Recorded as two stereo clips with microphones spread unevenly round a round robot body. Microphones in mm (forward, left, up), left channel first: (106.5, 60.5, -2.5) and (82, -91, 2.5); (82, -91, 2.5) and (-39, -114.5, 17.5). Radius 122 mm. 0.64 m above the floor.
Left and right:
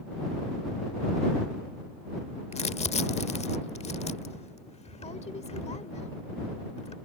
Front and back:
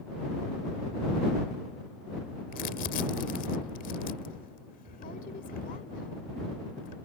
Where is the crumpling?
30° left.